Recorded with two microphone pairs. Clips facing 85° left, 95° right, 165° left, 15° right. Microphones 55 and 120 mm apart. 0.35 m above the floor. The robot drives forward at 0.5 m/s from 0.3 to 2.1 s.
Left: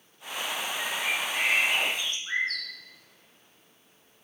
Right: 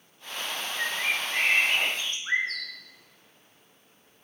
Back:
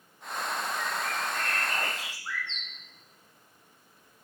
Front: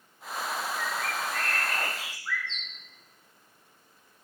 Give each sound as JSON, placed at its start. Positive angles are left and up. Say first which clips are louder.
{"t": 0.8, "sound": "a bird", "louder": "right 3 dB, even", "azimuth_deg": -110, "distance_m": 1.2}